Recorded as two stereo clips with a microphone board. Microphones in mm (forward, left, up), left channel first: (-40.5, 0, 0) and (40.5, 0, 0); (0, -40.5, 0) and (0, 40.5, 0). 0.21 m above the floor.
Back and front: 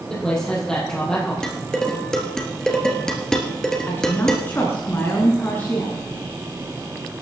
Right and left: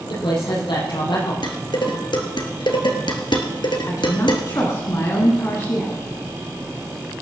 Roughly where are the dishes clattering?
Right.